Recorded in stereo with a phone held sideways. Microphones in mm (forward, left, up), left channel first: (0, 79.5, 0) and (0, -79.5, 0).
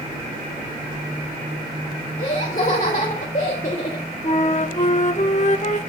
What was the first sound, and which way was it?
Laughter, 55° left (ahead or behind).